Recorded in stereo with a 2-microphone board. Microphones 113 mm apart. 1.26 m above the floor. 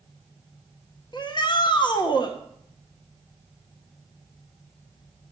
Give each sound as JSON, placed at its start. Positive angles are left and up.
{"t": 1.1, "sound": "a shout", "side_deg": 40, "distance_m": 0.9}